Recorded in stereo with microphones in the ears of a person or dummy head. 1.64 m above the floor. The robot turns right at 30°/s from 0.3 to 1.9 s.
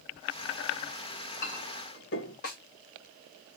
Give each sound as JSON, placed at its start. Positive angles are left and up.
{"t": 1.1, "sound": "a clink", "side_deg": 35, "distance_m": 1.6}
{"t": 2.4, "sound": "a snare drum", "side_deg": 55, "distance_m": 1.8}